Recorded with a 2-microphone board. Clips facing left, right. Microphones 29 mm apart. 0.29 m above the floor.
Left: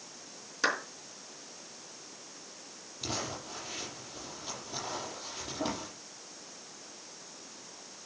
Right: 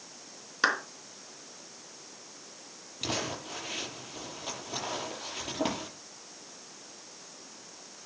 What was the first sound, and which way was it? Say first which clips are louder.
A clap: right 3 dB; 35° right (ahead or behind).